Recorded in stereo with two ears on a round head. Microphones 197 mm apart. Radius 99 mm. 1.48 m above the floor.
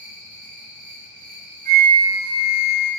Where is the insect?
40° right (ahead or behind), 1.1 m.